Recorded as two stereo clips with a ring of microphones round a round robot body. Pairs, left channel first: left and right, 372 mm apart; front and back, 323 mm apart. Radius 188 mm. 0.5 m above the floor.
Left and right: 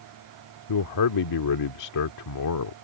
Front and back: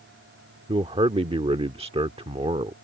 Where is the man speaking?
110° left.